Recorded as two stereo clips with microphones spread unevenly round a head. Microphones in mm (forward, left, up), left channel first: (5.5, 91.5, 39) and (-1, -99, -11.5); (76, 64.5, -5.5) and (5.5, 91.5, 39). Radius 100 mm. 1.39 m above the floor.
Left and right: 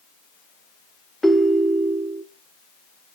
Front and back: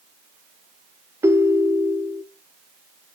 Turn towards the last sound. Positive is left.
turn(degrees=165)